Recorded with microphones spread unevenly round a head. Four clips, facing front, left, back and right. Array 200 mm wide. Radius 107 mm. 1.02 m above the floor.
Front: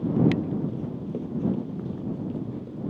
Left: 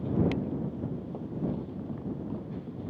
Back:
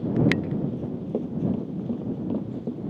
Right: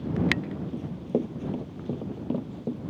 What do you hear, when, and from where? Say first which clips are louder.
0.7 s running footsteps: right 7 dB, back 3 dB; 105° right; by 2.8 s 140° right